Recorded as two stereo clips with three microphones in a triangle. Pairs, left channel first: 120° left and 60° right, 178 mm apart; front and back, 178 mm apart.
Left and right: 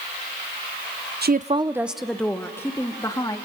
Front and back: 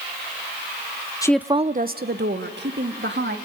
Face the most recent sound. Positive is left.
turn(degrees=-170)